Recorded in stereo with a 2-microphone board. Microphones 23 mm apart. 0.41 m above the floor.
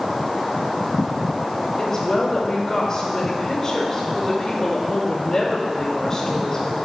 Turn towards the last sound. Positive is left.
turn(degrees=25)  # may be behind; listen again after turning